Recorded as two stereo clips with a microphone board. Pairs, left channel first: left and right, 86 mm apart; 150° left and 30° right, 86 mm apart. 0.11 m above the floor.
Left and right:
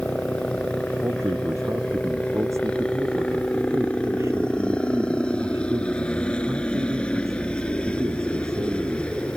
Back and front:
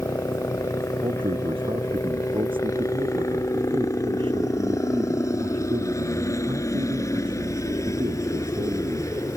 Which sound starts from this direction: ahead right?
A man speaking, at 1.0 s.